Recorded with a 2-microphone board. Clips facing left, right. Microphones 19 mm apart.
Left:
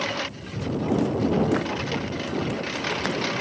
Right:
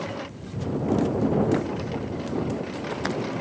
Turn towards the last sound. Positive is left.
turn(degrees=80)